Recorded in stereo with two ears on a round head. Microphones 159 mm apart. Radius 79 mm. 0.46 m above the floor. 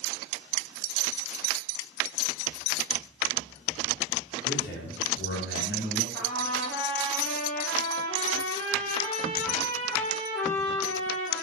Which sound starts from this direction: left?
A man speaking, at 4.5 s.